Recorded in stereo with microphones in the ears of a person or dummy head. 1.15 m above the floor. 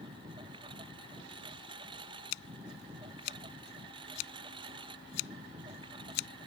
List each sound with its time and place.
0.0 s a lawn mower: 25° right (ahead or behind)
2.3 s scissors: 60° left (ahead or behind)